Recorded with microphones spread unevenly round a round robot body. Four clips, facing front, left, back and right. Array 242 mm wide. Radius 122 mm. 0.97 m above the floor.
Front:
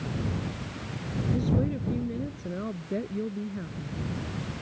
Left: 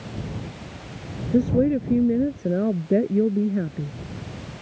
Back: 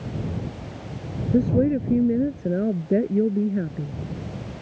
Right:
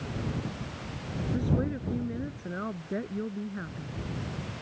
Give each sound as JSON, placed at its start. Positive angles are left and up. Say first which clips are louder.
{"t": 1.3, "sound": "a woman speaking", "louder": "left 12 dB, back 10 dB", "azimuth_deg": 135}